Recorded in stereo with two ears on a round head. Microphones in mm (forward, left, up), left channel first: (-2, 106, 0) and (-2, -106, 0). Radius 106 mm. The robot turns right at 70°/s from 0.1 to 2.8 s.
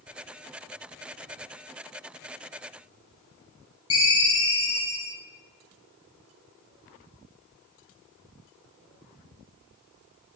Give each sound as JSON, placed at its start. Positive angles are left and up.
{"t": 3.9, "sound": "a ringtone", "side_deg": 20, "distance_m": 1.9}